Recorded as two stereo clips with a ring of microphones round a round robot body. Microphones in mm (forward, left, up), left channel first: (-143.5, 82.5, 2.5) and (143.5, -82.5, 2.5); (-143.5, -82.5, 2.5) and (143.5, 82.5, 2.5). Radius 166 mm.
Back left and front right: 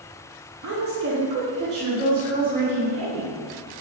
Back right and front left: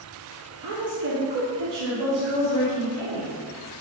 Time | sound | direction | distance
0.6 | a woman speaking | 5° left | 1.2 m